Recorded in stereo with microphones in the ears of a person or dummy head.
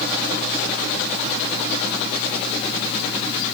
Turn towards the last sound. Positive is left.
No sound to turn to.